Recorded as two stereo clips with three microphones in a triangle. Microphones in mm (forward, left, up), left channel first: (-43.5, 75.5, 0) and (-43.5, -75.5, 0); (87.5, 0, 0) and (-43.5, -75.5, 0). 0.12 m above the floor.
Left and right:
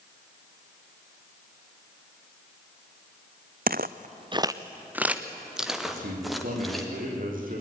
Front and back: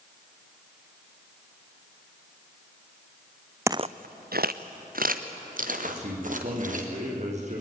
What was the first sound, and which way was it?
Footsteps, 75° right.